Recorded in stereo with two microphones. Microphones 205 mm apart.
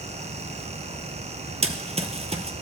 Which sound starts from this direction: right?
Running footsteps, at 1.6 s.